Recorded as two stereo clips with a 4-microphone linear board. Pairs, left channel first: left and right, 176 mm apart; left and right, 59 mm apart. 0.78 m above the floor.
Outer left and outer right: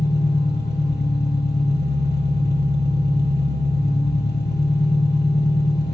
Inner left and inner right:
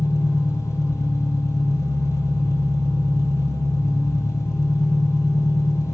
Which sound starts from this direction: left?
An engine running, at 0.0 s.